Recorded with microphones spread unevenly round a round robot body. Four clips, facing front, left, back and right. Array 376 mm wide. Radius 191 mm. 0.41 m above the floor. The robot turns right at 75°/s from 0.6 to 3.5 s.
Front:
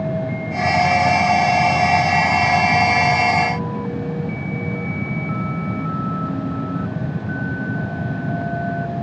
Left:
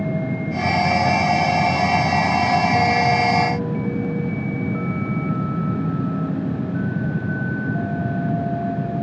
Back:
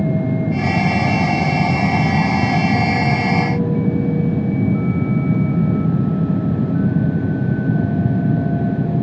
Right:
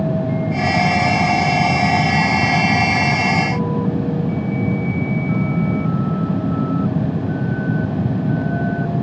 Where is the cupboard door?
No cupboard door in this recording.